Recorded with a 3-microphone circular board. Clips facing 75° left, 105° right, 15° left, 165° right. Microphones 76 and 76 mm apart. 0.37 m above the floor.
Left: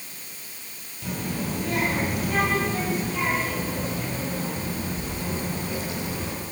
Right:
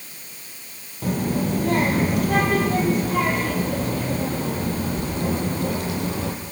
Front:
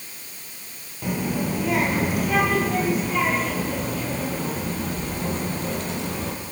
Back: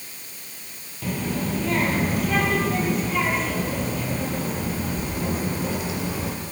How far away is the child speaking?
About 6.5 m.